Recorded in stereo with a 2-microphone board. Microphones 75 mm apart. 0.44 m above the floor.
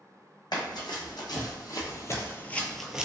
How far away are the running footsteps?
About 1.4 m.